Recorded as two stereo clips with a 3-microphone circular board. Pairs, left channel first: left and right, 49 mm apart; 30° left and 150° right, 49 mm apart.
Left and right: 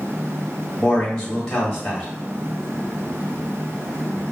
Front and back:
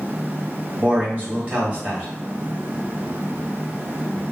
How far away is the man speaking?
About 2 m.